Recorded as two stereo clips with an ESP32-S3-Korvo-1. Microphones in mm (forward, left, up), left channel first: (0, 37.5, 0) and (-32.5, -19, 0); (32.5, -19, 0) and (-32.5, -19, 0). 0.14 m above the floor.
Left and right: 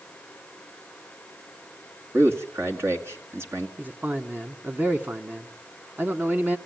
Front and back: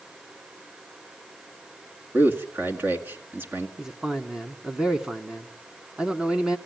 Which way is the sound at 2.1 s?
140° right.